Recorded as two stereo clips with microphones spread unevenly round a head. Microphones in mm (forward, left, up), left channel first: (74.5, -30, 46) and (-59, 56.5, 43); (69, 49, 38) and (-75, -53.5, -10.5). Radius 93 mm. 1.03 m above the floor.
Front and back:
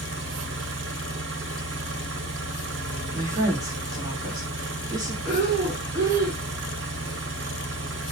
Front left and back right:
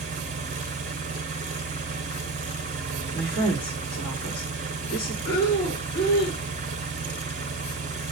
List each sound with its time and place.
0.0 s an engine running: 160° left, 1.1 m
3.1 s a woman speaking: 80° left, 1.9 m
5.2 s breathing: 75° left, 3 m